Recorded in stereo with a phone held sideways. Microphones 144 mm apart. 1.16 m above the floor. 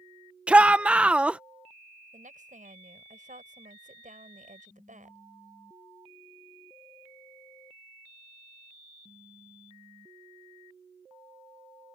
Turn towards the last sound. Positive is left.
turn(degrees=-70)  # may be behind; listen again after turning